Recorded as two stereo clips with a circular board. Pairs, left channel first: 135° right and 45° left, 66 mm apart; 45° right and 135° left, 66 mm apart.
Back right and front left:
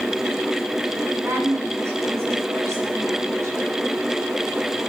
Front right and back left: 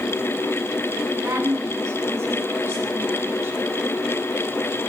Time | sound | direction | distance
1.2 | a woman speaking | 95° left | 8.5 m